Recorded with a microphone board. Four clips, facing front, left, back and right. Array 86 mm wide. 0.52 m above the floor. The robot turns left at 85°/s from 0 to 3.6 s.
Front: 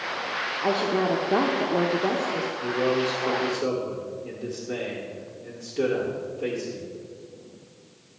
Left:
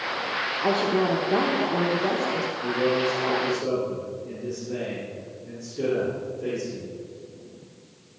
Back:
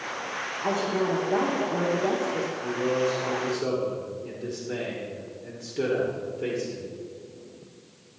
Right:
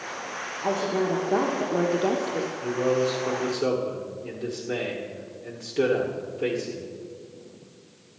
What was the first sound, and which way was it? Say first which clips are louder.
A woman speaking: left 2 dB, front 2 dB; 60° left.